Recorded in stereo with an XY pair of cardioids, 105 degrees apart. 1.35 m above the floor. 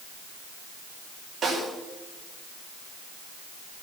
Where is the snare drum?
60° right, 5.5 m.